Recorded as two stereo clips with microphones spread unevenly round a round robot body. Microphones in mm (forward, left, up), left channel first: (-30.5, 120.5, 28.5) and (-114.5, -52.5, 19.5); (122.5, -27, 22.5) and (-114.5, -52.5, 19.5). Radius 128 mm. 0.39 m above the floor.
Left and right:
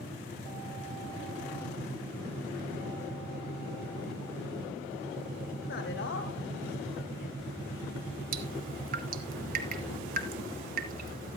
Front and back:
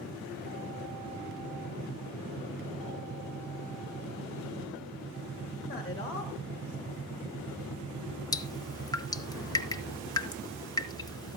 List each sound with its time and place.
5.6 s a man speaking: 70° left, 2.5 m; by 7.4 s 100° left, 2.5 m
8.3 s dripping: 70° right, 1.0 m